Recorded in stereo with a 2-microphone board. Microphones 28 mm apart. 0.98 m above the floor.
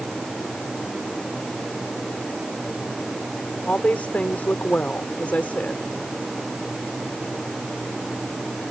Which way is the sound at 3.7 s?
70° left (ahead or behind).